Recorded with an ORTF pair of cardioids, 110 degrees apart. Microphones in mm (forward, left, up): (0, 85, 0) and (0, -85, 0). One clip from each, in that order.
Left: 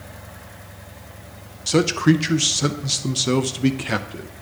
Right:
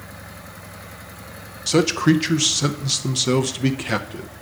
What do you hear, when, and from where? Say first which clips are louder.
1.7 s a man speaking: even; straight ahead, 0.6 m